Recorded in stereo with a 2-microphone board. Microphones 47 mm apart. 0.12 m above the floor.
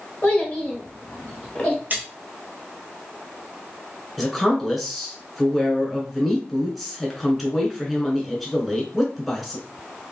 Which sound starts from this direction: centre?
A woman speaking, at 4.2 s.